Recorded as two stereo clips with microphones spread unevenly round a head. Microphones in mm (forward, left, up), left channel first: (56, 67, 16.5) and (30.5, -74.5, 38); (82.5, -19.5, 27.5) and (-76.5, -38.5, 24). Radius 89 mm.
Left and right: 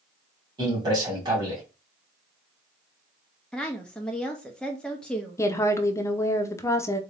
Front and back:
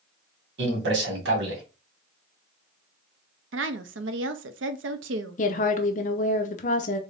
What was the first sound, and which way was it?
A man speaking, 170° right.